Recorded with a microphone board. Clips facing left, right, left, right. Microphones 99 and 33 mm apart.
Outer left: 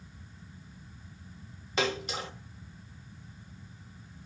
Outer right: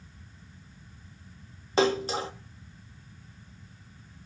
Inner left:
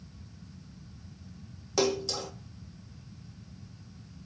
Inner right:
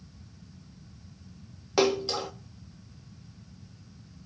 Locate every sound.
1.8 s a splash: 35° right (ahead or behind), 1.2 m